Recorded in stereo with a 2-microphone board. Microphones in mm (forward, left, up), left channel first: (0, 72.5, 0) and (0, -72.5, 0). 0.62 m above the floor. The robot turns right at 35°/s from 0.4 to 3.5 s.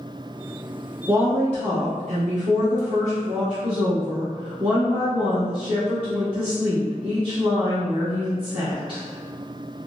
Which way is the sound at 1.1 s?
135° right.